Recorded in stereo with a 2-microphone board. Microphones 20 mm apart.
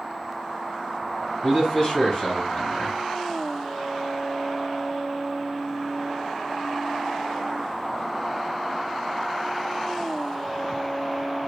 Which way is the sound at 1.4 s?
40° left (ahead or behind).